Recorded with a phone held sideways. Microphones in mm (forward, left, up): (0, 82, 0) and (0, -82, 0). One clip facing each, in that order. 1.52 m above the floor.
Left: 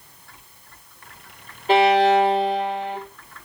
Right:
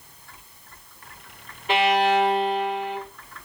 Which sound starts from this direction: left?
A violin, at 1.7 s.